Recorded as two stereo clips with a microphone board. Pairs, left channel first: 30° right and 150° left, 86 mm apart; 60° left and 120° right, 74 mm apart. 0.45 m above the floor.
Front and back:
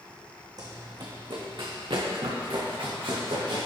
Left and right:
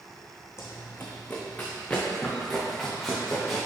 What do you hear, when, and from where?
0.6 s running footsteps: 110° left, 1.4 m; by 3.7 s 150° left, 3.5 m